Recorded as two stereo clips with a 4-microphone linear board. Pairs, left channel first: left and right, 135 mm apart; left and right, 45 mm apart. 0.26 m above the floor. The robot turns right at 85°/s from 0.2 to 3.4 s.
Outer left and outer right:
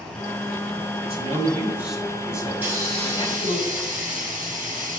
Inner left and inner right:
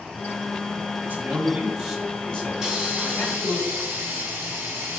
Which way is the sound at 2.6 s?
170° right.